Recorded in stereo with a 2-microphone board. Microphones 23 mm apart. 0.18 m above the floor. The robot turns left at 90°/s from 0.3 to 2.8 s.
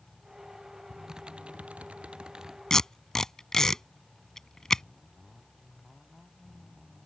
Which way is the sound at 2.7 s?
30° left (ahead or behind).